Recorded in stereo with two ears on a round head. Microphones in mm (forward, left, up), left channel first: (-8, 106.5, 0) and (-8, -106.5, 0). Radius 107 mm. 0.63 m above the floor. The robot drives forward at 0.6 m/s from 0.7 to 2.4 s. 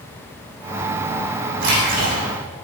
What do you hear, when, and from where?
1.6 s a splash: 55° right (ahead or behind), 6.5 m; by 2.2 s 50° right (ahead or behind), 6.5 m